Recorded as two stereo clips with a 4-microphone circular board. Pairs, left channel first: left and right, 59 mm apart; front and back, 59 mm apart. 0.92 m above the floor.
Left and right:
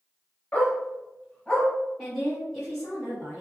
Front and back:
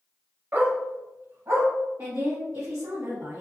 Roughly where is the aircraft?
No aircraft in this recording.